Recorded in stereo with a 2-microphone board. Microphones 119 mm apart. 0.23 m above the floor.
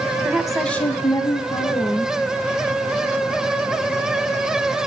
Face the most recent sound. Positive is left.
turn(degrees=50)  # may be behind; listen again after turning